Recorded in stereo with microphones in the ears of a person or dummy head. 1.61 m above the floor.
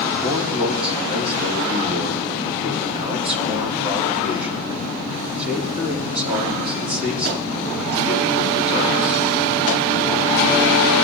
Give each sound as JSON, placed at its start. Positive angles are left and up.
{"t": 0.2, "sound": "a man speaking", "side_deg": -55, "distance_m": 3.0}